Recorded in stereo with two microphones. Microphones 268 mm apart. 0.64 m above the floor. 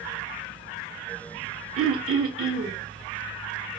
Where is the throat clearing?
55° right (ahead or behind), 0.8 m.